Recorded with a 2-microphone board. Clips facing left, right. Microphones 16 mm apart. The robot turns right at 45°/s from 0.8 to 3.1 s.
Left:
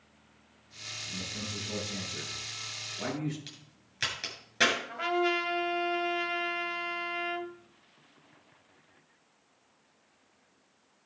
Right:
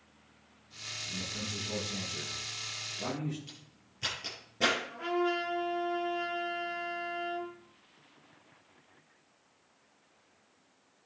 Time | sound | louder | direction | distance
1.1 | a man speaking | even | 45° right | 7 m
3.5 | a crack | left 2 dB | 75° left (ahead or behind) | 6.5 m
4.9 | a trumpet | left 3 dB | 60° left (ahead or behind) | 2.5 m